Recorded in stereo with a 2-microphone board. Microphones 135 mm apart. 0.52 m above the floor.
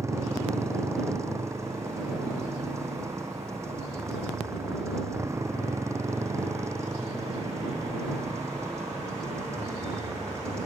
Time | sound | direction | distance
0.0 | a motorcycle | 20° right (ahead or behind) | ?